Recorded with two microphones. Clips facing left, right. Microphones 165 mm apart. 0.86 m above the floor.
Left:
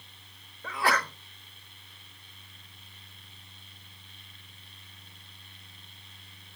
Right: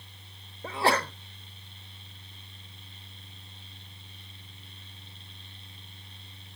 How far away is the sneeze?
About 1.2 m.